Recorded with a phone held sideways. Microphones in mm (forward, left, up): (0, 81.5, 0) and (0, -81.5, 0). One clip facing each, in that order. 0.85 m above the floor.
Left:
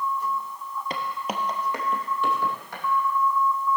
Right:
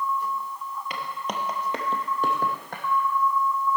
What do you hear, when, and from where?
0.9 s footsteps: 35° left (ahead or behind), 1.3 m; by 2.8 s 50° right (ahead or behind), 3 m